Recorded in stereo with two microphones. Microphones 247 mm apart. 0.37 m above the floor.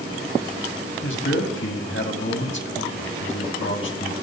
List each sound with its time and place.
1.0 s a man speaking: 60° left (ahead or behind), 2.5 m